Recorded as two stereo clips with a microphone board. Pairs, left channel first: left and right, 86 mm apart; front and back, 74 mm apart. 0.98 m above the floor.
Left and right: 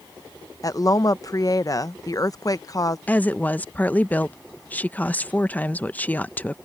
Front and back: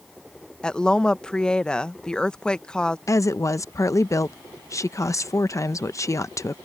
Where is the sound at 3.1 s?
25° left.